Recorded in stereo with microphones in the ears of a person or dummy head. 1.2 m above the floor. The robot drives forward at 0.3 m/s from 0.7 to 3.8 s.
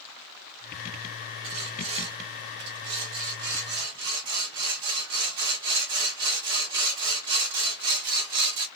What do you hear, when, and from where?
1.4 s sawing: 25° right (ahead or behind), 1.4 m; by 8.7 s 20° right (ahead or behind), 1.9 m